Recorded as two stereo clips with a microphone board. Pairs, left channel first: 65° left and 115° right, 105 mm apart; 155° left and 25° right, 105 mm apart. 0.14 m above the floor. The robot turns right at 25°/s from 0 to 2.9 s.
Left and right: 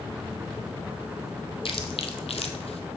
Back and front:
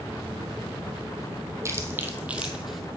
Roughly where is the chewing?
Ahead left.